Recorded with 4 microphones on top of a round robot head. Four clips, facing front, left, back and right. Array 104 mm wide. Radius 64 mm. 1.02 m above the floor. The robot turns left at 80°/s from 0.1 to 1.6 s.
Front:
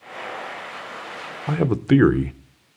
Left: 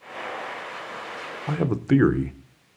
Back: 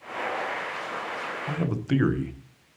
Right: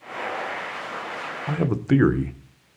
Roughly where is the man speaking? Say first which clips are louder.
Even, front 10 dB; ahead.